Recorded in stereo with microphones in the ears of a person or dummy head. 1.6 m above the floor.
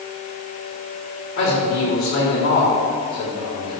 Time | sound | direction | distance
1.4 | a man speaking | 80° left | 4 m